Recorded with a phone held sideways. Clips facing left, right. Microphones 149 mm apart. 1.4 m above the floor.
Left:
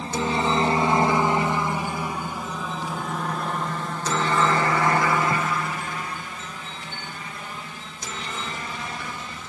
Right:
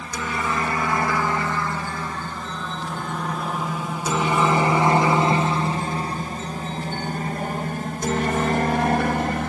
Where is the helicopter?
30° left (ahead or behind); by 9.5 s 60° right (ahead or behind).